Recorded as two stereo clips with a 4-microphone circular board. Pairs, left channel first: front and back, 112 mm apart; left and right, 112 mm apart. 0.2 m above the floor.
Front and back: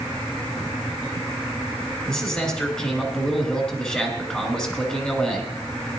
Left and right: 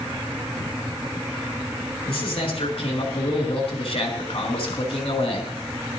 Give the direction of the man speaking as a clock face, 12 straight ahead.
9 o'clock.